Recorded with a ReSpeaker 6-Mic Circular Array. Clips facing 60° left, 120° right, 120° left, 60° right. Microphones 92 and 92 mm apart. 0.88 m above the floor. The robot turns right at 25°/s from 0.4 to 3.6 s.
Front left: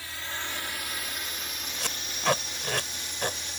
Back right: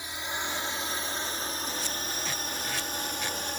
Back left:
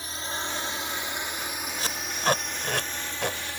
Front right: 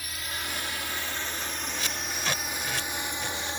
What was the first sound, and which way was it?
A drone, 175° left.